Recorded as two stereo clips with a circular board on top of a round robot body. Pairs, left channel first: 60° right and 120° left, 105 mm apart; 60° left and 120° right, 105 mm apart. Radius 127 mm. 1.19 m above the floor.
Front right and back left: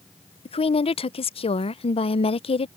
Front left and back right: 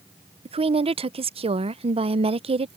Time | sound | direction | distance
0.5 | a woman speaking | 90° right | ?